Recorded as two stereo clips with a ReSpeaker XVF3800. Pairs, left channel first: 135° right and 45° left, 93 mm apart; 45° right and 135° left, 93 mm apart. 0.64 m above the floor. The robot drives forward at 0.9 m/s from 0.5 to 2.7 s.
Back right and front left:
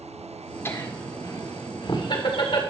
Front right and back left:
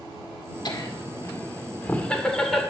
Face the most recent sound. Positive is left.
turn(degrees=-135)